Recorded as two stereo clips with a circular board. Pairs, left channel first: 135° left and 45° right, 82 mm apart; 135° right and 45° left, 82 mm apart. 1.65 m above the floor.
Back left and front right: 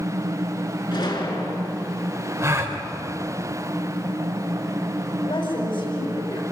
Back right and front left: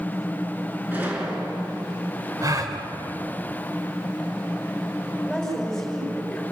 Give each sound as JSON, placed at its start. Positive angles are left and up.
{"t": 0.9, "sound": "a gunshot", "azimuth_deg": 115, "distance_m": 5.0}
{"t": 2.4, "sound": "a gasp", "azimuth_deg": 5, "distance_m": 3.0}
{"t": 5.2, "sound": "a woman speaking", "azimuth_deg": 140, "distance_m": 6.5}